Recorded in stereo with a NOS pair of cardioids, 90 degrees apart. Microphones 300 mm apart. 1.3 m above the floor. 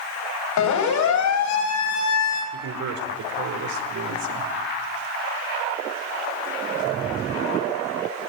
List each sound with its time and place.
0.6 s a siren: 70° left, 7.5 m; by 2.4 s 60° left, 8 m
2.5 s a man speaking: 70° right, 5 m